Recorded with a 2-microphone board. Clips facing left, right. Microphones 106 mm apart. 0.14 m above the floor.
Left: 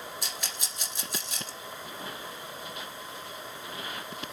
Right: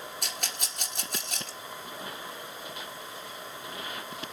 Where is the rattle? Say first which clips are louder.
Right 1 dB; 55° right (ahead or behind), 1.9 m.